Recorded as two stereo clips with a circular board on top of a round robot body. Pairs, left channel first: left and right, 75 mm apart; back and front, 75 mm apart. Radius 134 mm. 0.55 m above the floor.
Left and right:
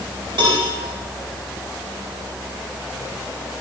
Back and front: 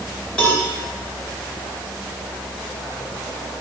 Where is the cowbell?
105° right, 5.5 m.